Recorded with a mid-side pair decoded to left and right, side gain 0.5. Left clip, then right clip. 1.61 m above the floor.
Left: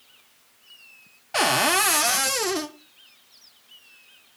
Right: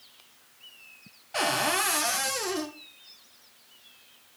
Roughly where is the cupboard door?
Ahead left.